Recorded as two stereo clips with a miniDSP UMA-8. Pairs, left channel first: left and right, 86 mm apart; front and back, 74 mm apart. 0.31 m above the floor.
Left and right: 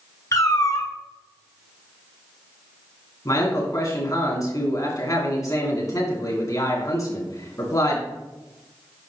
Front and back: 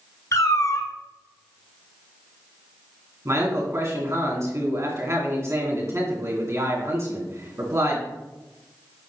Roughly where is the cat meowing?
Ahead left.